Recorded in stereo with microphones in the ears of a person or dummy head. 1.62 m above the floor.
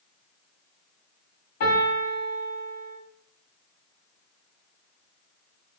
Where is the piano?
45° left (ahead or behind), 3.5 m.